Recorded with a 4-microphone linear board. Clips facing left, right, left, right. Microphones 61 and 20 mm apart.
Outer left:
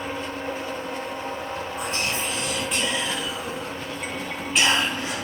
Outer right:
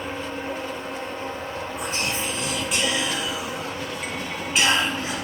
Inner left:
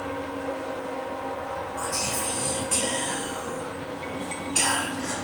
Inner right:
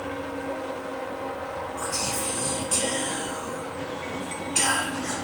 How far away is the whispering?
About 1.2 m.